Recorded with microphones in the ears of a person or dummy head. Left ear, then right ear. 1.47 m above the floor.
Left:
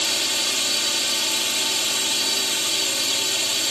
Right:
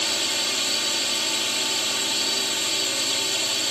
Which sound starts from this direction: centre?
A drone, at 0.0 s.